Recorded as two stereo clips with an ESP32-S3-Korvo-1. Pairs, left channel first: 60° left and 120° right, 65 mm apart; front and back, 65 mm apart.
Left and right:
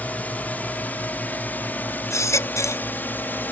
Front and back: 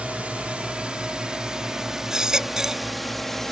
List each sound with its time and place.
0.0 s a drone: 120° left; by 3.5 s 80° left
2.1 s a baby crying: 100° left